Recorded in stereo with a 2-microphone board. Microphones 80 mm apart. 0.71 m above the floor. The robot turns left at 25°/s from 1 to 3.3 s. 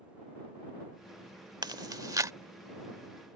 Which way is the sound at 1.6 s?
60° right (ahead or behind).